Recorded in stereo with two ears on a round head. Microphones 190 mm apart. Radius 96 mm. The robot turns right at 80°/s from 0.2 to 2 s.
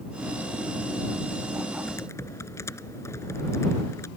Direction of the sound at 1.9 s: 5° left (ahead or behind).